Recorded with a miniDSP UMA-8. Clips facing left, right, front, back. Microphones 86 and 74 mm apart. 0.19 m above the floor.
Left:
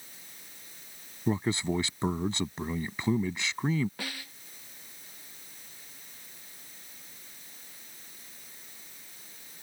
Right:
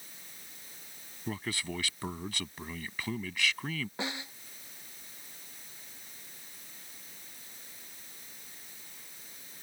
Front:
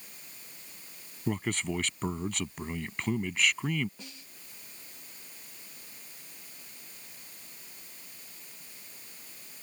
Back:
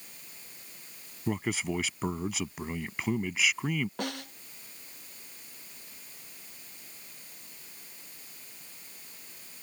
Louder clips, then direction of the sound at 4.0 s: Right 3 dB, back 15 dB; 160° right.